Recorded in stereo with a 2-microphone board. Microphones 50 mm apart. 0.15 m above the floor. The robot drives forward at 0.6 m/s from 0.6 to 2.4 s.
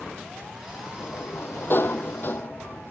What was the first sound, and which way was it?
A sliding door, 50° left (ahead or behind).